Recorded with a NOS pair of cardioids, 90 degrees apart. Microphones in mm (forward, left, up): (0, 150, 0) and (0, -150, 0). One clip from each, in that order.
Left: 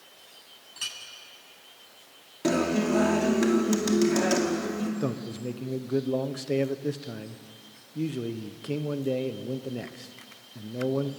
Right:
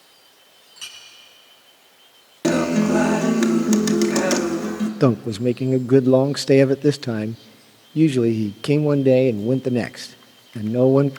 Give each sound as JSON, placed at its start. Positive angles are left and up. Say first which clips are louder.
{"t": 0.8, "sound": "a clink", "louder": "left 2 dB", "azimuth_deg": 20, "distance_m": 9.5}
{"t": 2.4, "sound": "a guitar", "louder": "right 6 dB", "azimuth_deg": -40, "distance_m": 2.5}
{"t": 5.0, "sound": "a man speaking", "louder": "right 13 dB", "azimuth_deg": -60, "distance_m": 0.5}